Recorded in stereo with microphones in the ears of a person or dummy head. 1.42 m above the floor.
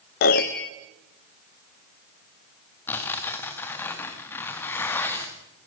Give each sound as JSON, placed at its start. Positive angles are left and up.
{"t": 0.2, "sound": "a piano", "side_deg": 40, "distance_m": 0.7}
{"t": 2.9, "sound": "tearing paper", "side_deg": 10, "distance_m": 2.0}